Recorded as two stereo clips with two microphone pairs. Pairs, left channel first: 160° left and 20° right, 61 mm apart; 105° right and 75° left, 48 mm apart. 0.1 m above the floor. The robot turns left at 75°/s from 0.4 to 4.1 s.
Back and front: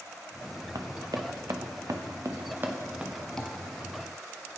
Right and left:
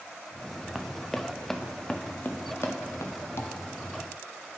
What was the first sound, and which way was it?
Running footsteps, 5° right.